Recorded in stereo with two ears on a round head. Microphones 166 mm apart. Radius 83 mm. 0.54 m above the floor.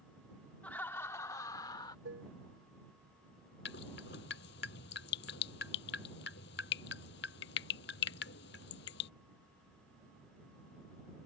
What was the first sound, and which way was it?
Laughter, 10° left (ahead or behind).